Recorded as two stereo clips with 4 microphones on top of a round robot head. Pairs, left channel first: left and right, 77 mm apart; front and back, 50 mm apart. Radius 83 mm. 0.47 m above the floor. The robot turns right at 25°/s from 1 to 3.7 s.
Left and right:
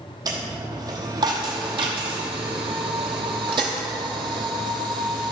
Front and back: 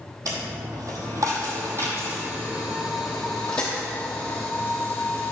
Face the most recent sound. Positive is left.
turn(degrees=-75)